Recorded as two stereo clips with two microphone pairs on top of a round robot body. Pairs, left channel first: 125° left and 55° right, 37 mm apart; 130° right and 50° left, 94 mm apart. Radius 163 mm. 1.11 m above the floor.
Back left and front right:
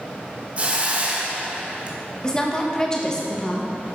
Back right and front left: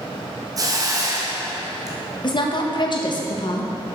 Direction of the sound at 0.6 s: Straight ahead.